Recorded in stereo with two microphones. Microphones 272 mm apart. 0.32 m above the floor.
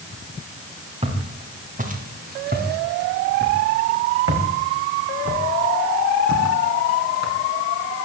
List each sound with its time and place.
1.0 s footsteps: 20° right (ahead or behind), 7 m; by 7.3 s 80° right, 8 m